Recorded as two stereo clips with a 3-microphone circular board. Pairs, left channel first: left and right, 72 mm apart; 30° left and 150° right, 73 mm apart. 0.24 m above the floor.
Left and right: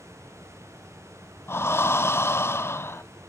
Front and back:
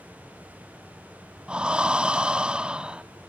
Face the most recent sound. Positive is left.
turn(degrees=135)